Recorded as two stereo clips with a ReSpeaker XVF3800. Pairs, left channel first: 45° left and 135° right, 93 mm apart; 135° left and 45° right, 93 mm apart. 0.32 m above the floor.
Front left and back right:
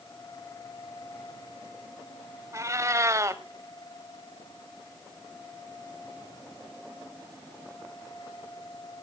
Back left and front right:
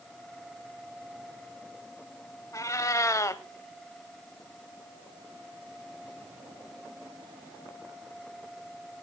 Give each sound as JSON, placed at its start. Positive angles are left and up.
{"t": 2.5, "sound": "a cat meowing", "azimuth_deg": 180, "distance_m": 0.8}